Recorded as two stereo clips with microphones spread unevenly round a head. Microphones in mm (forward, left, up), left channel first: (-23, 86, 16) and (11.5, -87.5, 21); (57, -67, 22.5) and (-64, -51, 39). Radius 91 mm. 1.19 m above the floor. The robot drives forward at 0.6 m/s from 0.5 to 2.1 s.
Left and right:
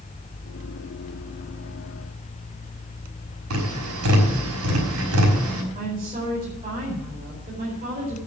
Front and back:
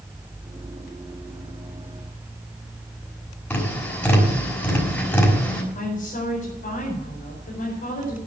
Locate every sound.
3.5 s tapping: 85° right, 5.5 m
5.8 s a woman speaking: 20° right, 4.5 m